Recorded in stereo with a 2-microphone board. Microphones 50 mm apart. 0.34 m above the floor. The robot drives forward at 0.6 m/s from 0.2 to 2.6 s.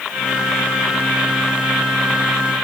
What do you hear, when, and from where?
Only background noise.